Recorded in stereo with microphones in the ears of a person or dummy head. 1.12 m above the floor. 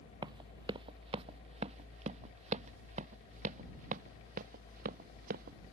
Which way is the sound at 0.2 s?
30° right (ahead or behind).